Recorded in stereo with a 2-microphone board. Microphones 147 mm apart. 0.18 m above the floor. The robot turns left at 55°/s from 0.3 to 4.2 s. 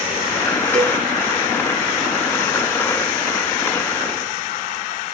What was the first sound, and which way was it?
A cowbell, 5° left (ahead or behind).